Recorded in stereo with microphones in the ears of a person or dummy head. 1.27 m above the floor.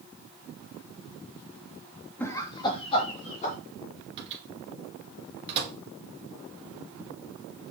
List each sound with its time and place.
2.2 s laughter: 10° left (ahead or behind), 1.1 m; by 3.5 s 40° left (ahead or behind), 3 m
4.2 s a microwave: 30° right (ahead or behind), 1.9 m